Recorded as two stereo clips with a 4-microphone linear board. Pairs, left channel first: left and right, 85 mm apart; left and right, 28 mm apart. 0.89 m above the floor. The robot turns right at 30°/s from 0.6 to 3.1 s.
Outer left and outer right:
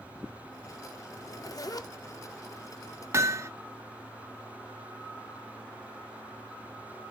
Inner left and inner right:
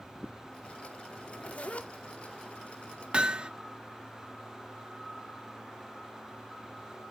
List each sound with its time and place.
1.1 s a zipper: 40° left (ahead or behind), 0.5 m; by 1.9 s 50° left (ahead or behind), 0.5 m
3.1 s hammering: 35° right (ahead or behind), 0.6 m